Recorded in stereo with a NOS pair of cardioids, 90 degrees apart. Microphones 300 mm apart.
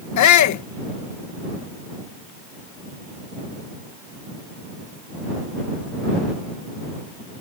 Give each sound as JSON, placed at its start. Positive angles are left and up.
{"t": 0.2, "sound": "a shout", "azimuth_deg": 70}